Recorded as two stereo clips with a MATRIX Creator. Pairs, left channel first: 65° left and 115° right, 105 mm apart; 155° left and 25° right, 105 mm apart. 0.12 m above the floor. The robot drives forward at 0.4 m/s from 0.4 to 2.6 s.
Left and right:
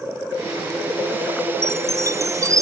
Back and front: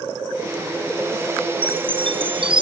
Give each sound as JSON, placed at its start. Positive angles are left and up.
{"t": 1.6, "sound": "a chime", "azimuth_deg": -50}